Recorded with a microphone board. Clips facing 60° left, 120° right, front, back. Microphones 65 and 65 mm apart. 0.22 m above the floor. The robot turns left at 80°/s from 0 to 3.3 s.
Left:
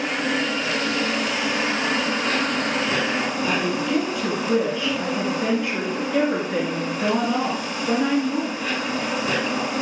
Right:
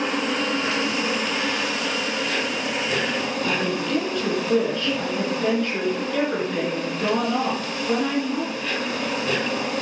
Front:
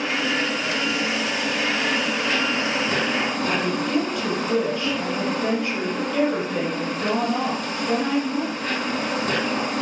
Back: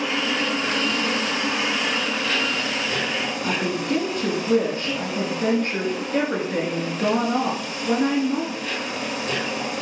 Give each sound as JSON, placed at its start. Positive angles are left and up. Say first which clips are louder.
{"t": 0.0, "sound": "an insect", "louder": "even, even", "azimuth_deg": -110, "distance_m": 3.5}
{"t": 3.4, "sound": "a woman speaking", "louder": "left 1 dB, front 1 dB", "azimuth_deg": 140, "distance_m": 2.5}